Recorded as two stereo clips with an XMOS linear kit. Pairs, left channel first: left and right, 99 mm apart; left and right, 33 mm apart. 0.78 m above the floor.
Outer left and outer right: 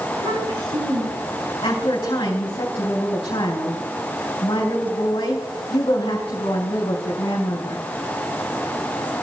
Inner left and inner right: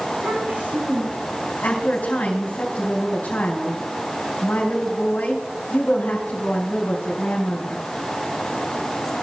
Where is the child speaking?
75° right (ahead or behind), 5.5 m; by 1.4 s 80° right, 5.5 m.